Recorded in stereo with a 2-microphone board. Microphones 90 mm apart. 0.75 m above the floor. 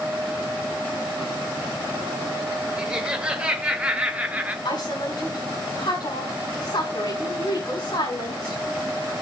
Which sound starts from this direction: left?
A woman speaking, at 4.7 s.